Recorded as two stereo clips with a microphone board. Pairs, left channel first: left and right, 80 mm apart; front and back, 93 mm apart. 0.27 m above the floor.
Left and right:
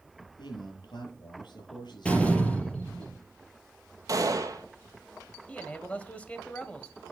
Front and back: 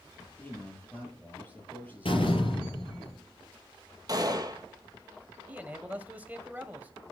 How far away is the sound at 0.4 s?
About 6.5 m.